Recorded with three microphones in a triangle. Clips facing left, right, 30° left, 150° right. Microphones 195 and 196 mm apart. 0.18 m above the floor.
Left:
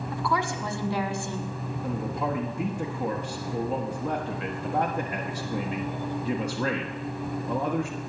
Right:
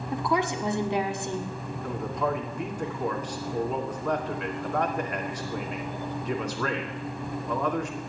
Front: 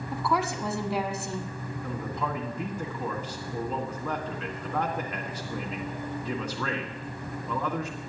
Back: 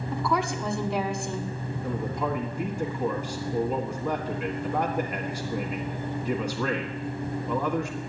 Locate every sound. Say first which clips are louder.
0.1 s a woman speaking: right 3 dB, back 1 dB; 55° right, 1.4 m
1.8 s a man speaking: right 1 dB, back 4 dB; 135° left, 1.4 m